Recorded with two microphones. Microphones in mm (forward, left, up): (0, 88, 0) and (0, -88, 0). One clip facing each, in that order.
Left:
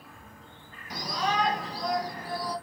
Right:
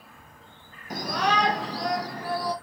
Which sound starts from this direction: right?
A shout, at 0.9 s.